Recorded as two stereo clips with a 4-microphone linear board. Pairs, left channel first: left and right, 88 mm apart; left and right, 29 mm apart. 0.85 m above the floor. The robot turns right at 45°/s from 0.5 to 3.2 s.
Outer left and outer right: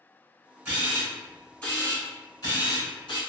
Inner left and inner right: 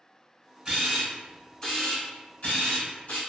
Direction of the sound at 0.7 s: 30° right (ahead or behind).